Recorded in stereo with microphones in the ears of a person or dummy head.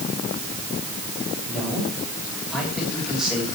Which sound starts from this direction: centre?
A man speaking, at 1.5 s.